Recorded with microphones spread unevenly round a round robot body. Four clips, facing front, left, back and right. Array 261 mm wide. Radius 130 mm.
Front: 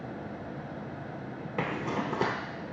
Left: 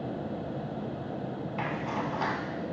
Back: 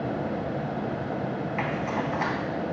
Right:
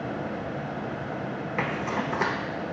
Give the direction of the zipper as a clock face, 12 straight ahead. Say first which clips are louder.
Right 4 dB, back 1 dB; 1 o'clock.